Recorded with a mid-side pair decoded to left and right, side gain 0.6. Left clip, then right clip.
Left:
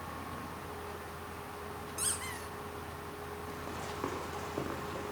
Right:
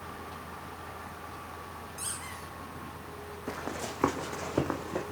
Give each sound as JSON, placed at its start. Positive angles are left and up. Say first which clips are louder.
{"t": 2.0, "sound": "a squeak", "louder": "left 2 dB", "azimuth_deg": 20, "distance_m": 5.0}
{"t": 3.5, "sound": "running footsteps", "louder": "right 8 dB", "azimuth_deg": -50, "distance_m": 4.5}